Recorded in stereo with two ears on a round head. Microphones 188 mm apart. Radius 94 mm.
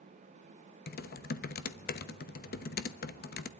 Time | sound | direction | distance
0.9 | typing on a keyboard | 45° left (ahead or behind) | 1.0 m